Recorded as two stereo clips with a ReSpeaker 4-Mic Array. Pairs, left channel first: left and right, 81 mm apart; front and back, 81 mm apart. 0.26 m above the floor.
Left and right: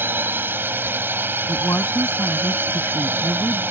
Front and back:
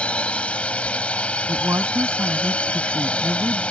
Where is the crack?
No crack in this recording.